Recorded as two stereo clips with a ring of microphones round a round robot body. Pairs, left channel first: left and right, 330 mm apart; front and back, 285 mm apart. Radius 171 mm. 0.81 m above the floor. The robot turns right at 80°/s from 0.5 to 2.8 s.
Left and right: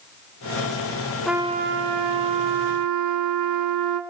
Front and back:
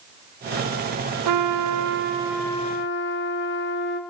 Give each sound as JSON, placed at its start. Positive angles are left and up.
{"t": 1.2, "sound": "a trumpet", "azimuth_deg": 180, "distance_m": 2.5}